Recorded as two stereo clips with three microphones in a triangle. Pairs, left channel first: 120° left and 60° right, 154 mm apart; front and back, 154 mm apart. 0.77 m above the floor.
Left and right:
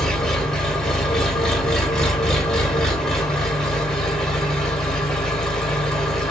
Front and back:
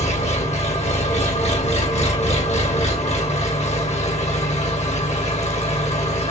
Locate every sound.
0.0 s an engine running: 35° left, 1.1 m